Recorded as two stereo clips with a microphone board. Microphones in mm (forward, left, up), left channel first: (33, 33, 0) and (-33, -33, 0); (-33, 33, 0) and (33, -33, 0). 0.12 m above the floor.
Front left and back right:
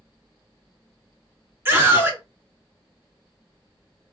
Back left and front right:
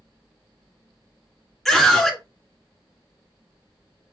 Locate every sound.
1.6 s a scream: 140° right, 1.8 m